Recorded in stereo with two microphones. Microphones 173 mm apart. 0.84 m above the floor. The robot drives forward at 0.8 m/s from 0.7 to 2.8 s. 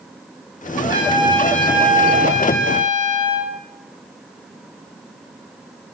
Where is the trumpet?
25° right (ahead or behind), 3 m; by 3.5 s 50° right (ahead or behind), 1.7 m.